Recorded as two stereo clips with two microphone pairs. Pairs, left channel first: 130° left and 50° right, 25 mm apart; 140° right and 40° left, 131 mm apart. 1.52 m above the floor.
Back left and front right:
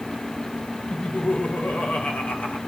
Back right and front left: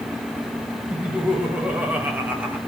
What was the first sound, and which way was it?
Laughter, 120° left.